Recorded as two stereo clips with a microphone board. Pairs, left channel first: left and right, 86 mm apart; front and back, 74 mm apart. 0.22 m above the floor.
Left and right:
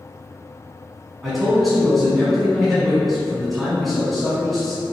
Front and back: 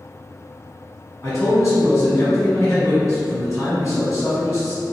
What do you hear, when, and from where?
1.2 s a man speaking: 5° right, 1.2 m